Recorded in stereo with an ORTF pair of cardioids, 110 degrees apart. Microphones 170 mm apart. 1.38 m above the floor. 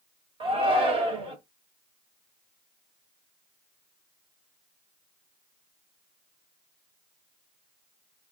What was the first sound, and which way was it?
A shout, 30° right.